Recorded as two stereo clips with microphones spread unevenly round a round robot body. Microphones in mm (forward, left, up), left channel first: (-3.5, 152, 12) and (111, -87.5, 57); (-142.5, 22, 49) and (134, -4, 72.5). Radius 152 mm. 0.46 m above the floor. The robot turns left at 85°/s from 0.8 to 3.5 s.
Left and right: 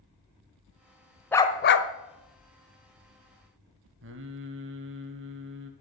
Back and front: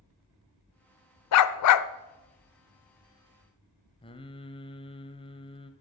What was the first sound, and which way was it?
A dog barking, 160° right.